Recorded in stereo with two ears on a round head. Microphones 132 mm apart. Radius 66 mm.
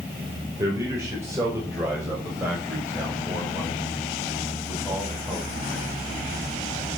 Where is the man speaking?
20° right (ahead or behind), 5 m; by 6.9 s centre (ahead or behind), 8 m.